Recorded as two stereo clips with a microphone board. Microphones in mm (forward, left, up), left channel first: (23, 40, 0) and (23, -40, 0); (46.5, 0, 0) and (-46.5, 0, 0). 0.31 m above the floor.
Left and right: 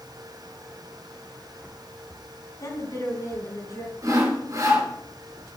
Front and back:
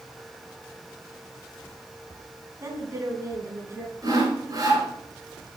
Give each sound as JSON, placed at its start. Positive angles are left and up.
{"t": 2.6, "sound": "a woman speaking", "azimuth_deg": 130, "distance_m": 3.0}
{"t": 4.0, "sound": "sawing", "azimuth_deg": -130, "distance_m": 4.0}